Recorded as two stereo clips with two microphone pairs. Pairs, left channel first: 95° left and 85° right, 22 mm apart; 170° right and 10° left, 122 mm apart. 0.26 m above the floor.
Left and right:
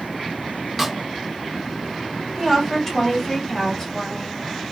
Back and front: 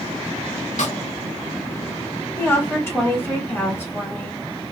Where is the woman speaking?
145° left, 1.5 m.